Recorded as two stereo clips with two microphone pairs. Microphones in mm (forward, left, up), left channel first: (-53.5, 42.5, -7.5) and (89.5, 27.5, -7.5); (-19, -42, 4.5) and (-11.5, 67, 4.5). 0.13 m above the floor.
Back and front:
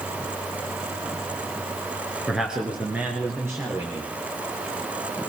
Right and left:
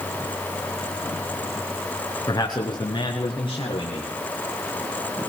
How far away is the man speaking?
About 1.5 m.